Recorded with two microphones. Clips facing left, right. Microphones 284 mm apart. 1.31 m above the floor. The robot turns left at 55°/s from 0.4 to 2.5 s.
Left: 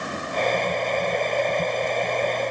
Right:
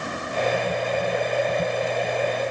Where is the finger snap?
I don't hear a finger snap.